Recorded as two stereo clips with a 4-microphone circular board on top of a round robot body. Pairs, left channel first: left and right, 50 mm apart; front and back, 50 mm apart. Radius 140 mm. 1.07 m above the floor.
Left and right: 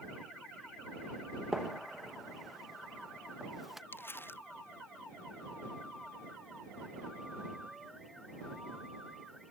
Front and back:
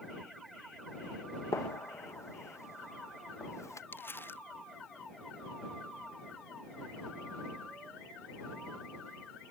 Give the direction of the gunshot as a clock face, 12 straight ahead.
12 o'clock.